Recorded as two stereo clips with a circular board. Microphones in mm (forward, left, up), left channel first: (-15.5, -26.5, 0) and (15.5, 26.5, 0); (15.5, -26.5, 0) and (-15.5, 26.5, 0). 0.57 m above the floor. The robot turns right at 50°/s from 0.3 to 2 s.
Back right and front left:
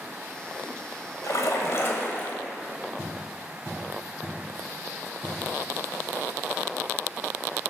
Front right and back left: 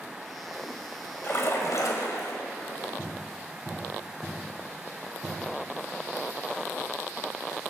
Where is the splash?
110° right, 1.7 m; by 2.4 s 70° right, 1.7 m.